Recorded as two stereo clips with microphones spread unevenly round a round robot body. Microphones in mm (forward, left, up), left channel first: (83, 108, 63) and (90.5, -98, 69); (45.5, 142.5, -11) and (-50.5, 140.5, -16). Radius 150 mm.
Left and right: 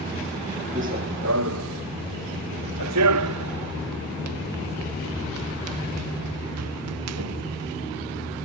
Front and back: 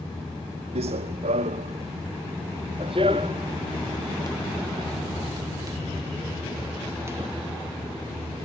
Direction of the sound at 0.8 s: 155° right.